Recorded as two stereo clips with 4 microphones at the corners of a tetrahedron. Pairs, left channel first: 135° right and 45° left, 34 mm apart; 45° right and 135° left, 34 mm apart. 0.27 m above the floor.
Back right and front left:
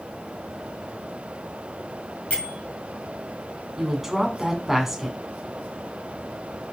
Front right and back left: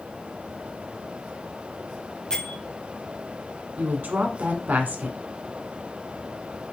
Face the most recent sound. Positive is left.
turn(degrees=125)